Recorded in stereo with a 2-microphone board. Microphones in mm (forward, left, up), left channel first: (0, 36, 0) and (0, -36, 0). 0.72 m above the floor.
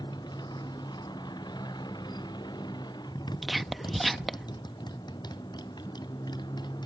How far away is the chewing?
No chewing in this recording.